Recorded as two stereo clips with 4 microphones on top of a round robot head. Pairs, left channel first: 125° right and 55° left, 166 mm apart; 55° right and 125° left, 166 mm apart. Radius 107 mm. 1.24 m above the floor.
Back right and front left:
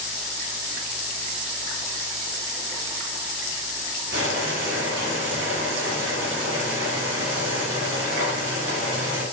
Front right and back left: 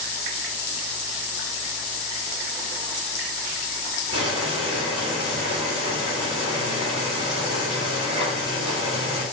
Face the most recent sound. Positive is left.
turn(degrees=70)